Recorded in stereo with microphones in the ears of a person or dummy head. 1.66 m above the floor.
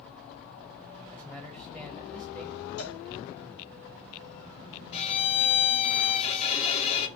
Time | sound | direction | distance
1.1 | a man speaking | centre (ahead or behind) | 0.8 m
2.8 | a cowbell | 60° left (ahead or behind) | 3.5 m
4.9 | a violin | 35° left (ahead or behind) | 0.8 m